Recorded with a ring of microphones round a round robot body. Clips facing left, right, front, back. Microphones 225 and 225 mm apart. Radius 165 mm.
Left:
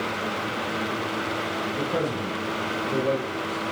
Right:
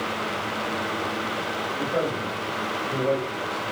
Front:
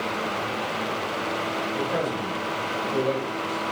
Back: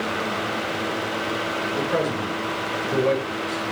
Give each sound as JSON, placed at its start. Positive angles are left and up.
{"t": 1.7, "sound": "a man speaking", "azimuth_deg": 140, "distance_m": 4.0}